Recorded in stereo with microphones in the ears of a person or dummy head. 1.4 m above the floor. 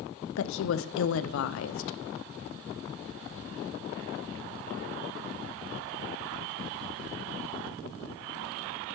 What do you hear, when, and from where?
0.4 s a woman speaking: 75° left (ahead or behind), 0.6 m